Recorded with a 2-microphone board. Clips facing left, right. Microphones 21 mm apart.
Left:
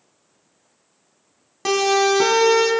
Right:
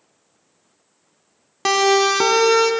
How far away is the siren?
About 2 m.